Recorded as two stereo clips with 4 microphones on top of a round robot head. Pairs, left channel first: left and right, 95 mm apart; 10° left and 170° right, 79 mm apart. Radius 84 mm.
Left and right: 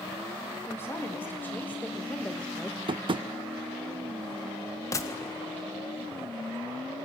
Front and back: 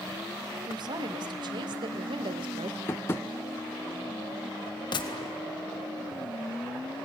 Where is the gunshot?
30° left, 1.7 m.